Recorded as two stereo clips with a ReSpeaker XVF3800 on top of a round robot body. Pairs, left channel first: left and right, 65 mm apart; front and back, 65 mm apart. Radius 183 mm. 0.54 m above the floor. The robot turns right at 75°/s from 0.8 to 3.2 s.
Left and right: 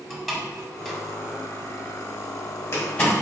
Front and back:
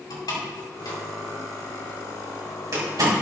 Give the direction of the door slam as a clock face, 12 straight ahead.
12 o'clock.